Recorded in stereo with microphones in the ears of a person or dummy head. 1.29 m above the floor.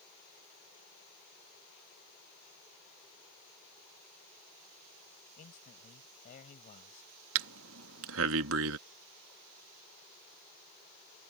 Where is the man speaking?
40° left (ahead or behind).